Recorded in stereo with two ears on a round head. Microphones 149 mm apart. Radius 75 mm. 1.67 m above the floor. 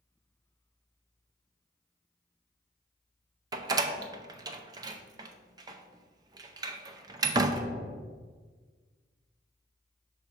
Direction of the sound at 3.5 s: 25° right (ahead or behind).